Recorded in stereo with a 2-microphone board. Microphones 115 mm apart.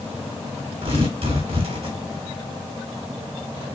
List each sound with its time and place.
0.8 s tearing paper: 60° right (ahead or behind), 3.5 m